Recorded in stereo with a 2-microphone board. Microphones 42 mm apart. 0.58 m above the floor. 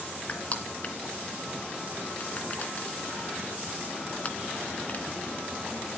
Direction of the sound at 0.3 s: 35° left (ahead or behind).